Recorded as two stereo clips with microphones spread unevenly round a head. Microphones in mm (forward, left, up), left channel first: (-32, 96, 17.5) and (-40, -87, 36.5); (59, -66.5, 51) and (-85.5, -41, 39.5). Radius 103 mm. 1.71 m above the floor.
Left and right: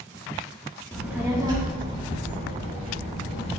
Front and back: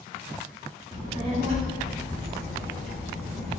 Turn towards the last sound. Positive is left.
turn(degrees=-140)